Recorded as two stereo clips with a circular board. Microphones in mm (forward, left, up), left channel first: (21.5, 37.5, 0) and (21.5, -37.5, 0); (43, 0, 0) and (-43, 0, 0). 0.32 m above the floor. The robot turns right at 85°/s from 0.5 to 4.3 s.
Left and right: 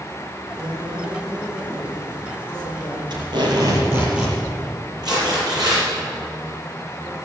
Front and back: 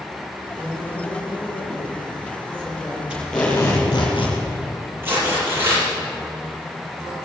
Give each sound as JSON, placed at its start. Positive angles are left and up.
{"t": 0.6, "sound": "a woman speaking", "azimuth_deg": -100, "distance_m": 4.5}
{"t": 3.1, "sound": "tape being pulled", "azimuth_deg": -105, "distance_m": 4.5}
{"t": 5.0, "sound": "tearing paper", "azimuth_deg": -115, "distance_m": 6.0}